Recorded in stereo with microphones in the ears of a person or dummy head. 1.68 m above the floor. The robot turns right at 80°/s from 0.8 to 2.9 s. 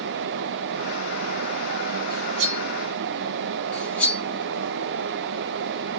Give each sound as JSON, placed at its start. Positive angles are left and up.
{"t": 2.1, "sound": "cutlery clinking", "side_deg": -55, "distance_m": 1.4}
{"t": 3.7, "sound": "cutlery clinking", "side_deg": 10, "distance_m": 2.0}